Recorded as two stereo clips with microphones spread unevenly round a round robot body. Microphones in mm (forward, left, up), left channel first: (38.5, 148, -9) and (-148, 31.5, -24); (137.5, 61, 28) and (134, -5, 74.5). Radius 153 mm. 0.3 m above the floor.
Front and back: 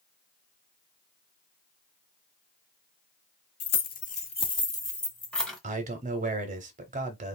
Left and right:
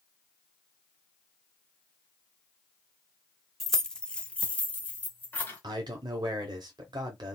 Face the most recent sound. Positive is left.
turn(degrees=-145)